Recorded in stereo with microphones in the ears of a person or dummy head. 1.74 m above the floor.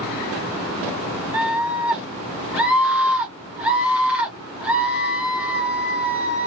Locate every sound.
1.3 s a scream: 10° right (ahead or behind), 0.9 m